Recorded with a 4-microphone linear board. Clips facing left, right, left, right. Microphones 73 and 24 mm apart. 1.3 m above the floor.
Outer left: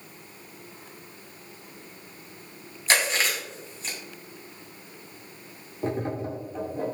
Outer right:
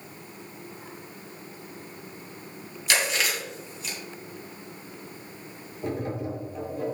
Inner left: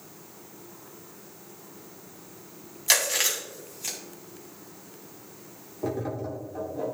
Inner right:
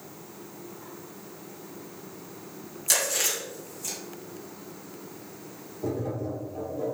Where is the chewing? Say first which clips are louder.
Outer left 2 dB, inner left 2 dB; 35° left (ahead or behind), 2.5 m.